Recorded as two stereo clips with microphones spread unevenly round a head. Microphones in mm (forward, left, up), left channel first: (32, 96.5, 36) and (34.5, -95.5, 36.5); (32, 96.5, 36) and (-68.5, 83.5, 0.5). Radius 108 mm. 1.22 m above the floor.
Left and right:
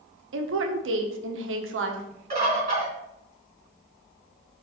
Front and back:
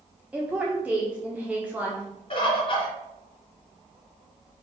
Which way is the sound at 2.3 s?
35° right.